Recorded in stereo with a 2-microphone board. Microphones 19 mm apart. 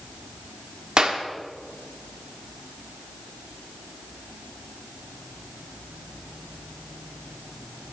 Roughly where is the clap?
Right.